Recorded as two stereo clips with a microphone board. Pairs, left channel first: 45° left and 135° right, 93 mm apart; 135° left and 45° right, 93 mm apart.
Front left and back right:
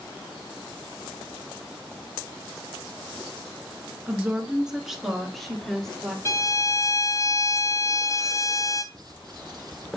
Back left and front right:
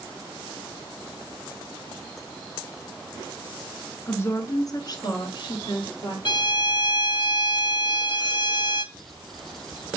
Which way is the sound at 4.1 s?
170° left.